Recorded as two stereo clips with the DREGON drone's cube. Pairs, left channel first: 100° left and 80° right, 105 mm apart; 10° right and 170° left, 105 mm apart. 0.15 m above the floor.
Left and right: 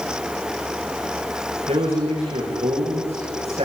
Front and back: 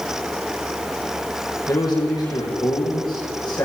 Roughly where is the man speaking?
Ahead right.